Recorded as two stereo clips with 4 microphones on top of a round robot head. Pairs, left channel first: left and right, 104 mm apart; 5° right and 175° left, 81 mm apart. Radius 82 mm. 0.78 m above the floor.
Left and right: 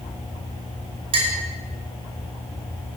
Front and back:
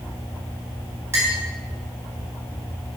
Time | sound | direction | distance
1.1 | a clink | 120° right | 5.5 m